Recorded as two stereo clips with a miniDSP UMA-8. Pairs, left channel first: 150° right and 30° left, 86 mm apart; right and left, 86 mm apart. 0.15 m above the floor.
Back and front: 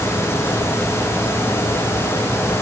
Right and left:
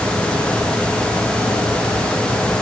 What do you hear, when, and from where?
Only background noise.